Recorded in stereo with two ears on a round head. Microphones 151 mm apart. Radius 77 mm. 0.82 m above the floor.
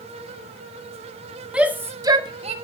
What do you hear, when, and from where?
1.5 s a shout: 5° right (ahead or behind), 1.9 m; by 2.5 s 40° right (ahead or behind), 1.6 m